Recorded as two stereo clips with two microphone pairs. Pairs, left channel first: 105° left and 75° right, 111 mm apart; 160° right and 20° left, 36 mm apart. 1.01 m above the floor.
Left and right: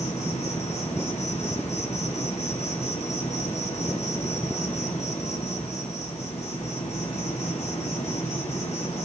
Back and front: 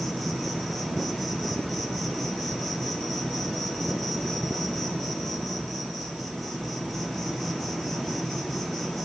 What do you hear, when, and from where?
0.0 s an insect: 110° left, 1.5 m